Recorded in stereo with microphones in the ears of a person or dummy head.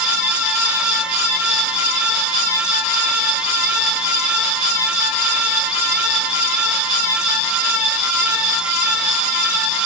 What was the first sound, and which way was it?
Only background noise.